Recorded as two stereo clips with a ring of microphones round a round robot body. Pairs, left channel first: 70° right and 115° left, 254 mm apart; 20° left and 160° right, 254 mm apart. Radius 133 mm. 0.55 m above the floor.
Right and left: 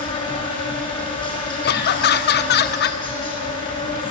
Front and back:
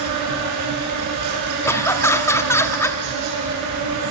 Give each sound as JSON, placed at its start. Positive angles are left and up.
{"t": 0.0, "sound": "an insect", "azimuth_deg": -140, "distance_m": 6.0}
{"t": 1.6, "sound": "laughter", "azimuth_deg": -50, "distance_m": 0.7}